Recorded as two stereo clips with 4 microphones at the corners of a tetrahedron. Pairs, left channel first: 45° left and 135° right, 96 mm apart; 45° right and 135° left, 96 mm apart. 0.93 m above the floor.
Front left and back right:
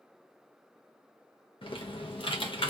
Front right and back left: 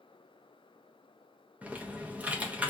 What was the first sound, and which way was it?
Typing on a keyboard, 60° left.